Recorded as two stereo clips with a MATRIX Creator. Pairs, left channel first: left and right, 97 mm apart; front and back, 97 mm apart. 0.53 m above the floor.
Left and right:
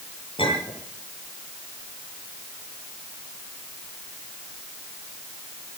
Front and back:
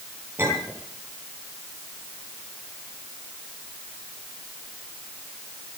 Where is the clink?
115° left, 10 m.